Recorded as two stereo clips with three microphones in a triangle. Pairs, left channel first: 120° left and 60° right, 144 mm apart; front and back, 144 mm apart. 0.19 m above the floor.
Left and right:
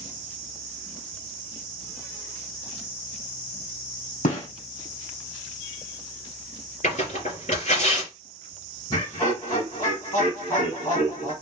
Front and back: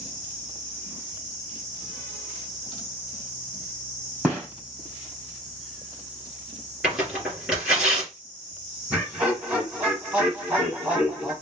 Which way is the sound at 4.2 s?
105° left.